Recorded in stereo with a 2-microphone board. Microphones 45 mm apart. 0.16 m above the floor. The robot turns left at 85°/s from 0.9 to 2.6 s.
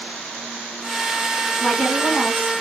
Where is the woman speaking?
170° left, 1.5 m; by 2.5 s 95° left, 1.5 m.